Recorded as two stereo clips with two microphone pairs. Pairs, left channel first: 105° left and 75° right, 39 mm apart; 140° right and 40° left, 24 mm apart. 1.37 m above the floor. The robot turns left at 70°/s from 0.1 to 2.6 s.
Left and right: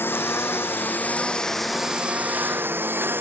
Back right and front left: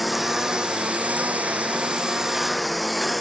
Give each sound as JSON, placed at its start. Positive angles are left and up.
{"t": 0.0, "sound": "a lawn mower", "azimuth_deg": 125}